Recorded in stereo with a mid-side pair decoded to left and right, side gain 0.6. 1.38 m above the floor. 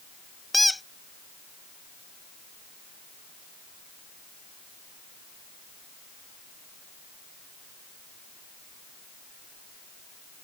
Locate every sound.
0.5 s a squeak: 5° left